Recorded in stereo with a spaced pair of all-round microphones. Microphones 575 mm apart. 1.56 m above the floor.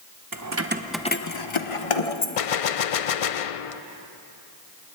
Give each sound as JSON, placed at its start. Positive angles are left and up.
{"t": 0.3, "sound": "keys jangling", "side_deg": -35, "distance_m": 1.2}
{"t": 2.4, "sound": "a gunshot", "side_deg": 70, "distance_m": 0.5}